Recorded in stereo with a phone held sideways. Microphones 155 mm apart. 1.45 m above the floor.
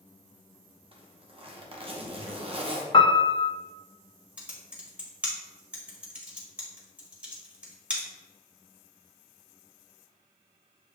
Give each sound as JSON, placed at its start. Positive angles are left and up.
{"t": 0.9, "sound": "a zipper", "side_deg": -35, "distance_m": 0.8}
{"t": 2.9, "sound": "a piano", "side_deg": 30, "distance_m": 0.6}
{"t": 4.4, "sound": "typing on a keyboard", "side_deg": -5, "distance_m": 1.2}